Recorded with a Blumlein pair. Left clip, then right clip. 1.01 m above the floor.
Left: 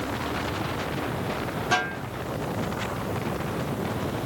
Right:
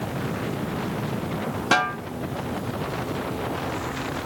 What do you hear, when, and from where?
1.7 s a snare drum: 60° right, 1.4 m